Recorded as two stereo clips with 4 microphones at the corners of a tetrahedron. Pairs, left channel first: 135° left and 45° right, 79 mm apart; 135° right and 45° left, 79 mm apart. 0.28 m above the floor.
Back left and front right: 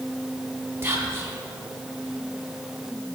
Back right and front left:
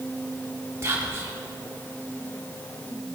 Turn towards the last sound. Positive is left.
turn(degrees=5)